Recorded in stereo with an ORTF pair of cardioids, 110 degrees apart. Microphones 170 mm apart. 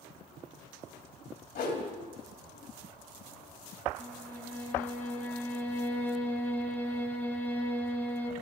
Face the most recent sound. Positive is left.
turn(degrees=10)